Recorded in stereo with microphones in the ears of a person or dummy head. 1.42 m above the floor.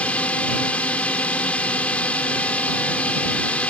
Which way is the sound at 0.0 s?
10° left (ahead or behind).